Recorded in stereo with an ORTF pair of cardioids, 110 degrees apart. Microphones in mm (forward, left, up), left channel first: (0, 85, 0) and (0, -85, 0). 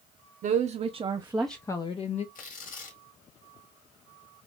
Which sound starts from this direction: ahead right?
A woman speaking, at 0.4 s.